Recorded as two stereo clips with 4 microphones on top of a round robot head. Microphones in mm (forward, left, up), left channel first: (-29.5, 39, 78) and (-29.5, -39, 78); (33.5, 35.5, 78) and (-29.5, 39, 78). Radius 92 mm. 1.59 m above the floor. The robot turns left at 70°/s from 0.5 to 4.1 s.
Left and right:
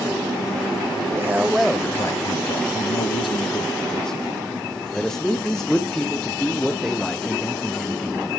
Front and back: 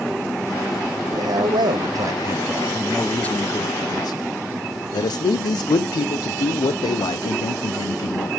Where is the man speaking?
145° right, 1.0 m; by 8.3 s 5° left, 1.0 m.